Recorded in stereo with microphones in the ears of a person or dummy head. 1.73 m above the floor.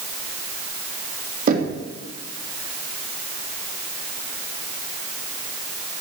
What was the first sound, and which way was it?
Knocking, 55° right (ahead or behind).